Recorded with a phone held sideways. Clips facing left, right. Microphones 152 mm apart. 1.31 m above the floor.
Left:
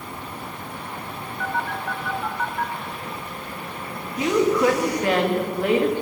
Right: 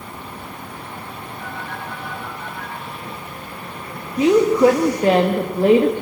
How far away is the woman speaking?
About 1.9 m.